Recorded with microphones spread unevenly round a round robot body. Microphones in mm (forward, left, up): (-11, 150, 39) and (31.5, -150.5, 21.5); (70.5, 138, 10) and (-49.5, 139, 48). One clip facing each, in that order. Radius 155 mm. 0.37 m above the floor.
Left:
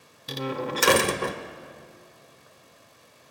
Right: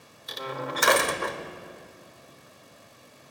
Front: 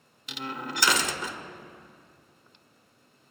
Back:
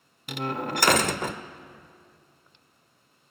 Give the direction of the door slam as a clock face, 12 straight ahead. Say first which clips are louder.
Left 5 dB, back 6 dB; 7 o'clock.